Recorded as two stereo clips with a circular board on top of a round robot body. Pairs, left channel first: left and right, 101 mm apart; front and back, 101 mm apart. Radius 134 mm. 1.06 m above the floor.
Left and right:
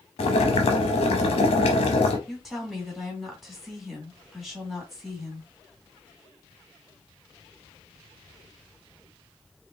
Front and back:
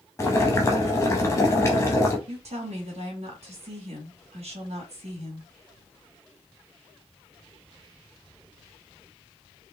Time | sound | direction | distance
0.2 | boiling | 65° left | 0.6 m
2.3 | a woman speaking | straight behind | 2 m